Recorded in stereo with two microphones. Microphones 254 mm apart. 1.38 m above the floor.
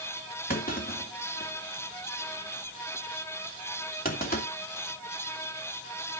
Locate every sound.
0.5 s a clunk: 35° left (ahead or behind), 2.5 m